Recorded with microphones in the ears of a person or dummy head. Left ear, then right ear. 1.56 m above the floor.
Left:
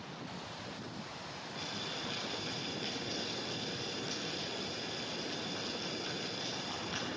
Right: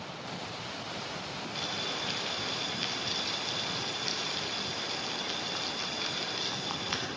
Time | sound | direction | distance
1.6 | boiling | 55° right (ahead or behind) | 7 m